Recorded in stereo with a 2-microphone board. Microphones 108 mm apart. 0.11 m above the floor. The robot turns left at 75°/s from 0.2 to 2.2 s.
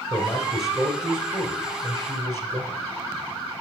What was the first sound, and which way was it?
A man speaking, 35° left.